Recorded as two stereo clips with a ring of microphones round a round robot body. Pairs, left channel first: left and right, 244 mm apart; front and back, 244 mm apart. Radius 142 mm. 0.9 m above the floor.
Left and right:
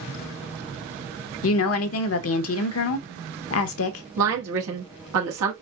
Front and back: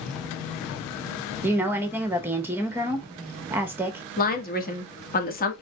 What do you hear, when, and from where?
1.4 s a woman speaking: 100° left, 0.7 m
4.2 s a woman speaking: 55° right, 1.4 m